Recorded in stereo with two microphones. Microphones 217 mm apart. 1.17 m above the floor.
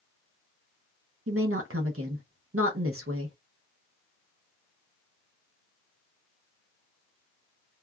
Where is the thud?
I don't hear a thud.